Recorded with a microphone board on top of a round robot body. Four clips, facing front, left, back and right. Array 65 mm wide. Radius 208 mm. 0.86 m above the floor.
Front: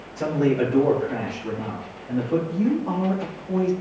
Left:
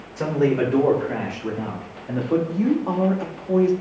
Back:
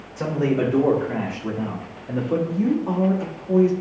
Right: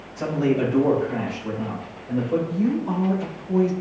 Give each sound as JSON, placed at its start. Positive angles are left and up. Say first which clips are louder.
{"t": 0.2, "sound": "a man speaking", "louder": "left 2 dB, front 1 dB", "azimuth_deg": 105, "distance_m": 3.5}
{"t": 2.5, "sound": "a woman speaking", "louder": "left 2 dB, back 1 dB", "azimuth_deg": 105, "distance_m": 2.0}